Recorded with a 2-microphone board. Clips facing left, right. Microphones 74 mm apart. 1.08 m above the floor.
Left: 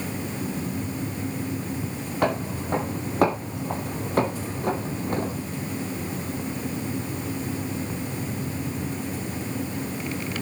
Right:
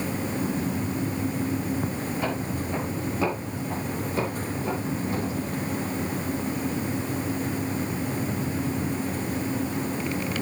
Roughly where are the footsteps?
Left.